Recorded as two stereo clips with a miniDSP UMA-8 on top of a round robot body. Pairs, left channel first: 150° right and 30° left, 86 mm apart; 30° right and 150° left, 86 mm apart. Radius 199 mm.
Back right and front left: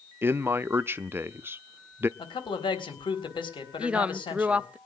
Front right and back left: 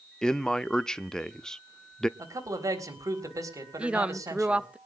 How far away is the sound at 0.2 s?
About 0.8 m.